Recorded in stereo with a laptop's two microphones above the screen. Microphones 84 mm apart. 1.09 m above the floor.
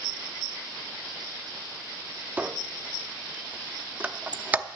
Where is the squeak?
20° right (ahead or behind), 0.6 m.